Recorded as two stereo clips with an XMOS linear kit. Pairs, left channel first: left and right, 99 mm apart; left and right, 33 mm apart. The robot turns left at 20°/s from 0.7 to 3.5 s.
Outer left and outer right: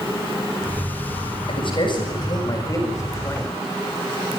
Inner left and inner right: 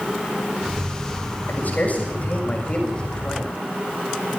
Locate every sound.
1.5 s a man speaking: 60° left, 7 m; by 3.6 s 20° left, 7 m